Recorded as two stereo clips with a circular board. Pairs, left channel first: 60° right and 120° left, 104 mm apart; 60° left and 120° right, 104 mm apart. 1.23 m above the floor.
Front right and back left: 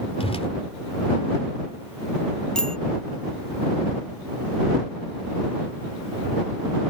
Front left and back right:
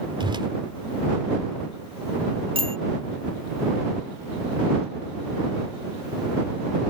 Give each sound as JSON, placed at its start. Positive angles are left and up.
{"t": 0.2, "sound": "a whoosh", "azimuth_deg": -80}
{"t": 2.5, "sound": "a bicycle bell", "azimuth_deg": -145}